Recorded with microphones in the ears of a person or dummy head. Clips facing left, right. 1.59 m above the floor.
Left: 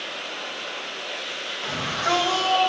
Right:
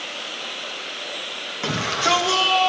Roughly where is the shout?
Right.